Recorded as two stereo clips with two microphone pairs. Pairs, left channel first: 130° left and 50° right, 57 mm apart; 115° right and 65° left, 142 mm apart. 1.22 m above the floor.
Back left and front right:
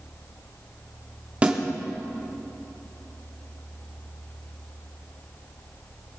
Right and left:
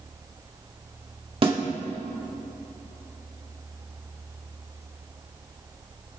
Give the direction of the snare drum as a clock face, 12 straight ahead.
12 o'clock.